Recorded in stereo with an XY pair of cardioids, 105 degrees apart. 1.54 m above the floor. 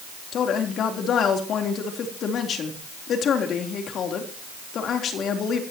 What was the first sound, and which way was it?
A woman speaking, 60° left.